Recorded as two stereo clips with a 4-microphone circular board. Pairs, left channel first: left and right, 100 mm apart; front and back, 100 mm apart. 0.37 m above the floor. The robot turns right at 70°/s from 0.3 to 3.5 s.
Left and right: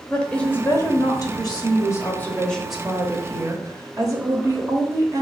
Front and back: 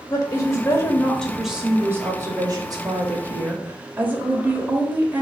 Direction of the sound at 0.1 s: 15° left.